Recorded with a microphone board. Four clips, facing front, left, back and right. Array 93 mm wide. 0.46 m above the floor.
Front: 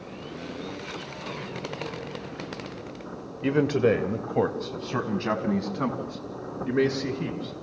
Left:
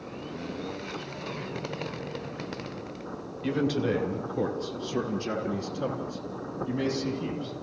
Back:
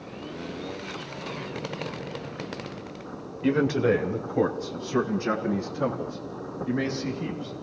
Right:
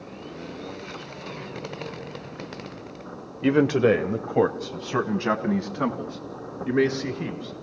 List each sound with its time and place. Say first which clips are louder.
3.4 s a man speaking: right 8 dB, front 1 dB; 85° right, 1.1 m; by 7.5 s 65° right, 4.5 m